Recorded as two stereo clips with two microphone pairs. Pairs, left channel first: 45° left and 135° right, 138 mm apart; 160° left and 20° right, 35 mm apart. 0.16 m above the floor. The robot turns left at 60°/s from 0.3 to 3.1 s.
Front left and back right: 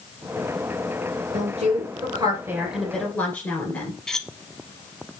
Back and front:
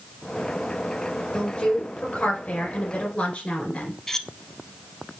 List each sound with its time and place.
1.3 s a woman speaking: 135° right, 2 m; by 4.0 s 120° left, 2 m
4.1 s cutlery clinking: 120° left, 0.6 m